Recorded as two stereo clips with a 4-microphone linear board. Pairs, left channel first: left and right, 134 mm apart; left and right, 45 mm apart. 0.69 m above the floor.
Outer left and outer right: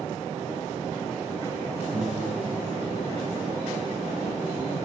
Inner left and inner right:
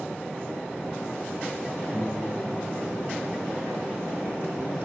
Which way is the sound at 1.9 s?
40° right (ahead or behind).